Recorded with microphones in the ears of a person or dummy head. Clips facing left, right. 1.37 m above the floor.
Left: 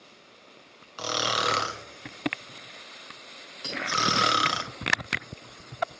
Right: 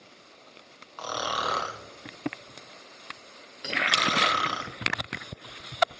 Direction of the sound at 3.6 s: 25° right (ahead or behind).